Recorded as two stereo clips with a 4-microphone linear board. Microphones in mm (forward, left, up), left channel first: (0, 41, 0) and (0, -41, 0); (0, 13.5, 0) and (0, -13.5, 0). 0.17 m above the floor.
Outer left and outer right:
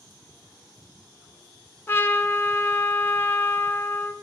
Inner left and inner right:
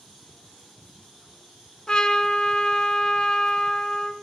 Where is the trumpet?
30° left (ahead or behind), 0.6 m.